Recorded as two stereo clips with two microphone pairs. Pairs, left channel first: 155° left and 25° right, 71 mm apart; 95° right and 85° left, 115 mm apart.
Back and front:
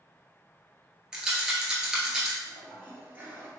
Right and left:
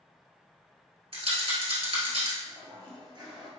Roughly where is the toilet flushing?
Ahead left.